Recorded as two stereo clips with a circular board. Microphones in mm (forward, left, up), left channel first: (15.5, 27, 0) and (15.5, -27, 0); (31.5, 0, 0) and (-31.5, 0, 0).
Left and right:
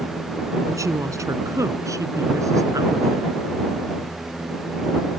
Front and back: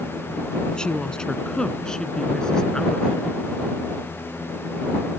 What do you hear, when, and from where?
0.7 s a woman speaking: 75° right; by 3.4 s 80° right